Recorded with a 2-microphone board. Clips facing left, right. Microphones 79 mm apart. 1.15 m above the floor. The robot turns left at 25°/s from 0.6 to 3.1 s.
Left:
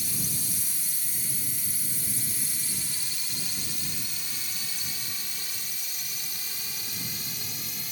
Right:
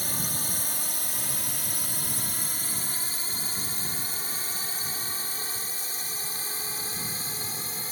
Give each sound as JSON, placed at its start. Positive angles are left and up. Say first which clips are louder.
{"t": 0.0, "sound": "a drone", "louder": "right 3 dB", "side_deg": -55}